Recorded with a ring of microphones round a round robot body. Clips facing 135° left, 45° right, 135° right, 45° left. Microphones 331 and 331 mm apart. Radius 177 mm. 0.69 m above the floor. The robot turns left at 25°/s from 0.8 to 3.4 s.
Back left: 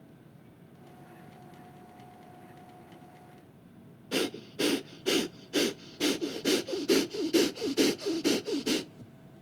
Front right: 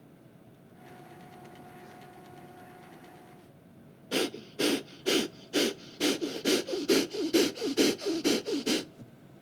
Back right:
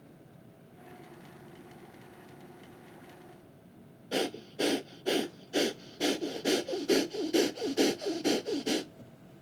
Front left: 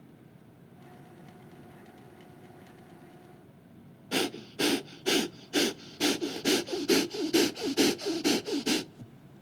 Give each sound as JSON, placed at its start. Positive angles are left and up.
{"t": 4.1, "sound": "breathing", "azimuth_deg": 50, "distance_m": 0.7}